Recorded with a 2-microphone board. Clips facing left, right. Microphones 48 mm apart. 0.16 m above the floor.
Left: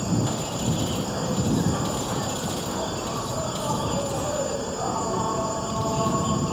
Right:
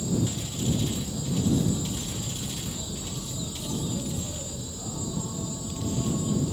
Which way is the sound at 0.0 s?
55° left (ahead or behind).